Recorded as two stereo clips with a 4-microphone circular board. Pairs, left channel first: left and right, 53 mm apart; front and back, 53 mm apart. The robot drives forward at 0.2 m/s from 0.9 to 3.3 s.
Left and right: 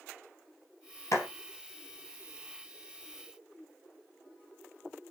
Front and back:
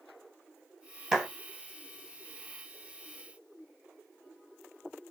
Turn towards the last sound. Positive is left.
turn(degrees=115)